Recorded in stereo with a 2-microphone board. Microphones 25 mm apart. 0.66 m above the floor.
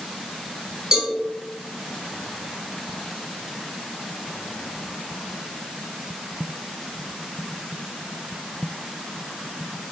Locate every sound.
0.9 s a cowbell: 30° right (ahead or behind), 2.0 m